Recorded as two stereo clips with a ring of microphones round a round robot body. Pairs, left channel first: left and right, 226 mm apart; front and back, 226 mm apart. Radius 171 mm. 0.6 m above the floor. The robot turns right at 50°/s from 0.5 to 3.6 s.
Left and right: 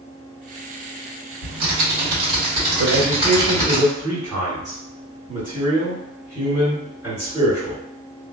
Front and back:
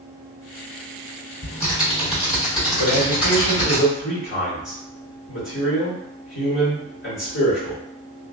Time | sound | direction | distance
1.4 | typing on a keyboard | 115° right | 1.5 m
2.8 | a man speaking | 40° right | 1.5 m